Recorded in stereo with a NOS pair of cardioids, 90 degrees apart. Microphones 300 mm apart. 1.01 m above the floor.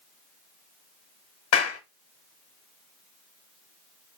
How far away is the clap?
About 1.1 m.